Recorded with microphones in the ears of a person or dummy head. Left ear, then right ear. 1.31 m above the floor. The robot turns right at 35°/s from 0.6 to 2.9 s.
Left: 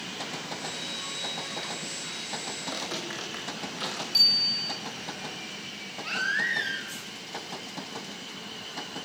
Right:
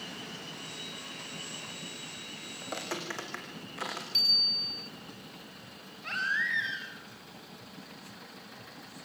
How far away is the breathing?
No breathing in this recording.